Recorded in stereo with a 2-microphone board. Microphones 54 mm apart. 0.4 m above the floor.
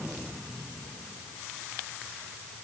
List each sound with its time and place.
Only background noise.